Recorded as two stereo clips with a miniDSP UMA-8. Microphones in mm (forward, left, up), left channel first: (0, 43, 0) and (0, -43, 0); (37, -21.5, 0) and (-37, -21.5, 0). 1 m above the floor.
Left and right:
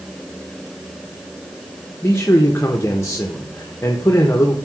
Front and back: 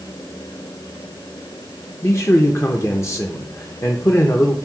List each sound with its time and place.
2.0 s a man speaking: 40° left, 0.9 m